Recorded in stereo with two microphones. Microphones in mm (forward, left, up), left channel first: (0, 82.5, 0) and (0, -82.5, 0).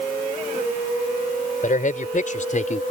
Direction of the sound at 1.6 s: 55° left (ahead or behind).